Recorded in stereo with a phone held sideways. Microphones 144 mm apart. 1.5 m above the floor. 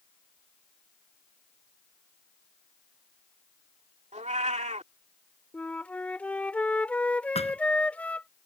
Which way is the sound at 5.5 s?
10° left (ahead or behind).